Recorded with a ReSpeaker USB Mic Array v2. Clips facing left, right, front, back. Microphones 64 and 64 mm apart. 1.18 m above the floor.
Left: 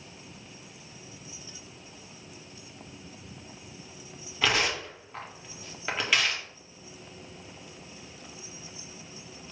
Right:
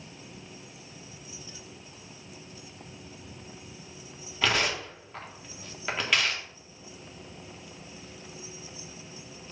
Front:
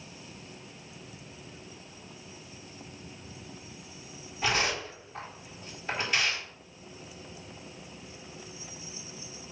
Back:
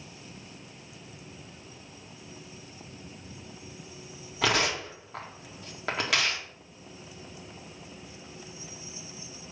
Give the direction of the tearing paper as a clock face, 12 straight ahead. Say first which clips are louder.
Even, back 2 dB; 6 o'clock.